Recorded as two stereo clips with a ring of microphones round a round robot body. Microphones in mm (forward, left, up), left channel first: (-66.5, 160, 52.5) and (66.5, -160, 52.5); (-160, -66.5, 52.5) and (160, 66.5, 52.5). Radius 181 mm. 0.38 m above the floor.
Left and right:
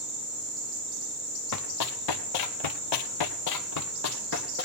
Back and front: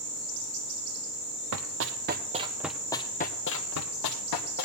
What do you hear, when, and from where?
1.5 s running footsteps: 70° left, 1.0 m; by 4.7 s 175° left, 1.2 m